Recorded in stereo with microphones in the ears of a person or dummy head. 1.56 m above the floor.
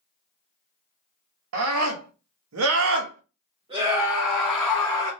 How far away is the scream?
About 1.2 m.